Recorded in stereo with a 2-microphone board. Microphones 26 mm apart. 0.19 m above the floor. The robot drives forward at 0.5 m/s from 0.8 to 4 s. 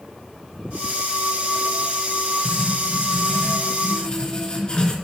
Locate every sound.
2.5 s writing: 35° left (ahead or behind), 3 m; by 4.9 s 30° left (ahead or behind), 3.5 m